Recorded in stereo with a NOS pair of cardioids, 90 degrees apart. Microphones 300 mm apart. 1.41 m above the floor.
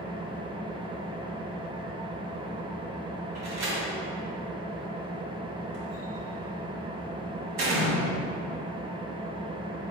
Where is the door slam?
60° right, 2.5 m.